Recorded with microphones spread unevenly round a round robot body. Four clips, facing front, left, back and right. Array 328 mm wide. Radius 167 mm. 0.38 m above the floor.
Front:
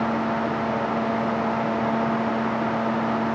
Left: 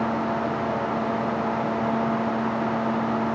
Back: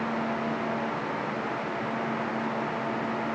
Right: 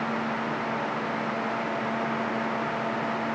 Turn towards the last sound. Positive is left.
No sound to turn to.